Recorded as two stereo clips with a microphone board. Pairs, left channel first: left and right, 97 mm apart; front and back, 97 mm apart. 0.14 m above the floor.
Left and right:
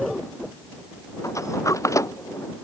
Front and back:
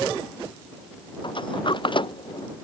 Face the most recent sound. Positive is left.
turn(degrees=35)